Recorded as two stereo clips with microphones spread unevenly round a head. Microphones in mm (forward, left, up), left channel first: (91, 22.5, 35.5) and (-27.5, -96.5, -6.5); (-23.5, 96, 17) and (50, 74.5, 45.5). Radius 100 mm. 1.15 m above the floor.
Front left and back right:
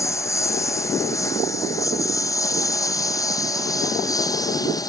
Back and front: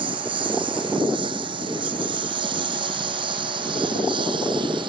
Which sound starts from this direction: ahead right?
A lawn mower, at 0.0 s.